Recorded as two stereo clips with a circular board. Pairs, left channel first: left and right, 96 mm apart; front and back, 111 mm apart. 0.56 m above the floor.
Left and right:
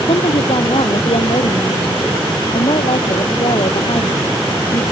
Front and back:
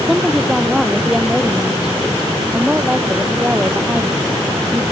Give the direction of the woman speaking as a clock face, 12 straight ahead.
9 o'clock.